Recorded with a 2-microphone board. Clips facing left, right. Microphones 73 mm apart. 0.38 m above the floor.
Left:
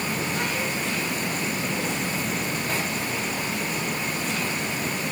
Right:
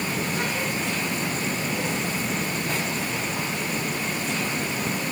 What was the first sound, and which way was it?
Only background noise.